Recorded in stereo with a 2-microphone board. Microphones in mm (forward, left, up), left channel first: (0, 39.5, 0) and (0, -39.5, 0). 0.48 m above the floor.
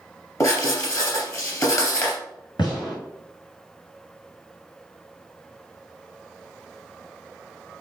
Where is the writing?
45° left (ahead or behind), 2.5 m.